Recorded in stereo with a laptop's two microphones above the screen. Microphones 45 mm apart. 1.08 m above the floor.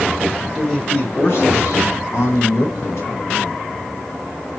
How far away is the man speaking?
About 0.7 m.